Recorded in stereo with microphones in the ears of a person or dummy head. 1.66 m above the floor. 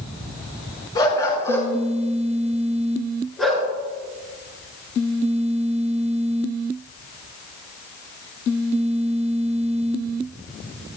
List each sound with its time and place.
0.9 s a dog barking: 25° left (ahead or behind), 4 m; by 3.7 s centre (ahead or behind), 5 m